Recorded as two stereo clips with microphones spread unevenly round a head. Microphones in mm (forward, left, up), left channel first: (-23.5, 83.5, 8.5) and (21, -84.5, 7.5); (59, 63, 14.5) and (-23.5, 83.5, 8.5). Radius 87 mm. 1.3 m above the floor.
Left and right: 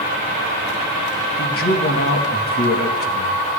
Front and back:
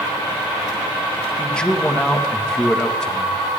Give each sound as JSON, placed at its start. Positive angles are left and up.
{"t": 1.4, "sound": "a man speaking", "azimuth_deg": 65, "distance_m": 1.8}